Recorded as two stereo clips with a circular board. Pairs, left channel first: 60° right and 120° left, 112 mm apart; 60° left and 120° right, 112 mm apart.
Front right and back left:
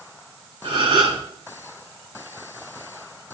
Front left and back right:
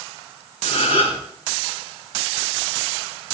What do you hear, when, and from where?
0.6 s a gasp: 85° left, 3.5 m